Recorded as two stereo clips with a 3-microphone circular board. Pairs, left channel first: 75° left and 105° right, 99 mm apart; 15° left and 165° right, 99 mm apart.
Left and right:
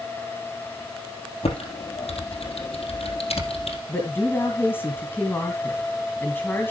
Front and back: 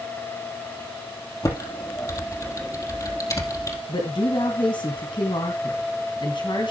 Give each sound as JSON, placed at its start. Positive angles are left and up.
{"t": 1.4, "sound": "typing on a keyboard", "azimuth_deg": 70, "distance_m": 3.0}
{"t": 3.9, "sound": "a woman speaking", "azimuth_deg": 10, "distance_m": 2.5}